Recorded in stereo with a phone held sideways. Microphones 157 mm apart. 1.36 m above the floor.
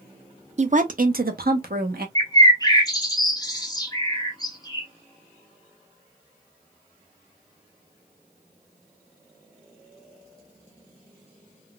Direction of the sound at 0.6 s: 45° right (ahead or behind).